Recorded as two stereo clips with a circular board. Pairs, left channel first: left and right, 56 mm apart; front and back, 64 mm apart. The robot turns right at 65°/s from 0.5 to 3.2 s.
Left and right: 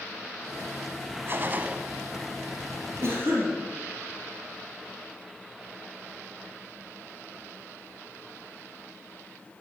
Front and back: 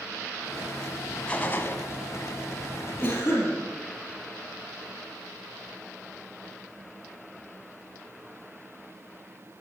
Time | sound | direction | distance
1.3 | a gunshot | 65° right | 0.5 m
3.0 | a cough | 70° right | 3.5 m